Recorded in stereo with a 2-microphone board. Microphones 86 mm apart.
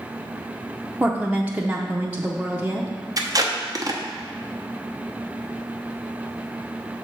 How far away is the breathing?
No breathing in this recording.